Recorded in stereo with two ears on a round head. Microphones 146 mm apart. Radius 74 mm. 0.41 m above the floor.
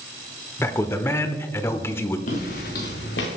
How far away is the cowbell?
I don't hear a cowbell.